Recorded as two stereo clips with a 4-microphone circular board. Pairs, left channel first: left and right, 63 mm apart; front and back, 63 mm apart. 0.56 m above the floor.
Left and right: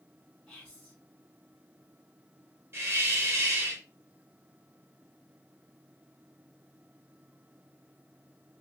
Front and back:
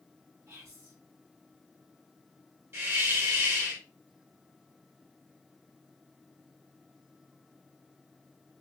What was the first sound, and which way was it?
Whispering, 170° left.